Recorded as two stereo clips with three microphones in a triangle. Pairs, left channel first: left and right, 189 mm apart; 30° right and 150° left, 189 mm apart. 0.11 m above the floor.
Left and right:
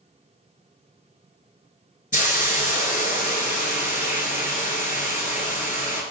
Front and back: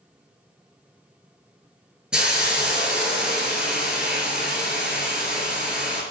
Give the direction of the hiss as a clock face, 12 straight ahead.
10 o'clock.